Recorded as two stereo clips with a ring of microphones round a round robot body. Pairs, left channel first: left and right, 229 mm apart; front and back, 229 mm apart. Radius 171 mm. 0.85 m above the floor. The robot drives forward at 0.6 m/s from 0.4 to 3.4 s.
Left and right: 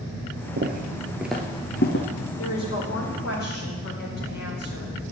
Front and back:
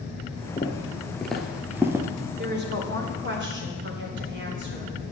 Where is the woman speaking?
135° left, 2 m; by 4.9 s 140° left, 2.5 m.